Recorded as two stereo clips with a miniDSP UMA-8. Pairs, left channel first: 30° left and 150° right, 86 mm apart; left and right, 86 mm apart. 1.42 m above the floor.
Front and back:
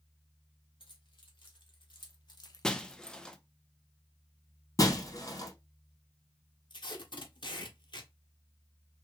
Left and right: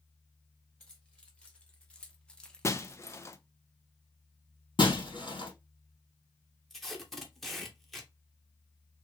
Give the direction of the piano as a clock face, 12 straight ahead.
No piano in this recording.